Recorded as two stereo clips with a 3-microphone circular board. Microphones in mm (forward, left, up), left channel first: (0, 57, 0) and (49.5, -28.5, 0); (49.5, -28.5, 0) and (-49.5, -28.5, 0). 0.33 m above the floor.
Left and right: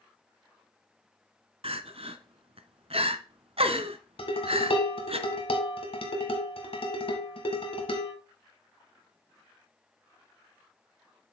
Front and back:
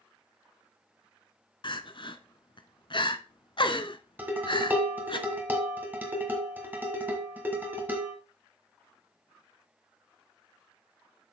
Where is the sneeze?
I don't hear a sneeze.